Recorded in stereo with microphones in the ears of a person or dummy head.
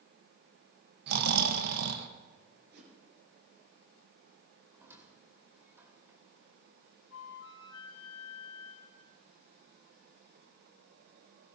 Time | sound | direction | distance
1.1 | snoring | 65° right (ahead or behind) | 1.3 m
2.7 | a whoosh | 65° right (ahead or behind) | 4 m
4.7 | a squeak | 10° right (ahead or behind) | 1.9 m
7.1 | a flute | 85° left | 2 m